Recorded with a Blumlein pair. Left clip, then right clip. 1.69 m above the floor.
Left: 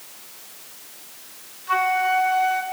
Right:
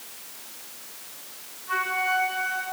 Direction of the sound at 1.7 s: 70° left.